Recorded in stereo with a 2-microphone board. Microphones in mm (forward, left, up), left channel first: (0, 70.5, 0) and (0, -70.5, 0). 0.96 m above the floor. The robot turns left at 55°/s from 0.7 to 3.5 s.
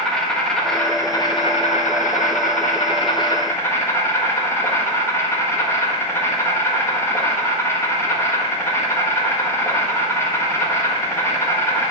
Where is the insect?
175° left, 1.4 m; by 11.9 s 20° left, 1.4 m.